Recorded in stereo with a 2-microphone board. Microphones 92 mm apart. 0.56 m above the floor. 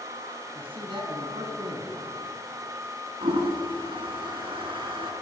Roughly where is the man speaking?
Right.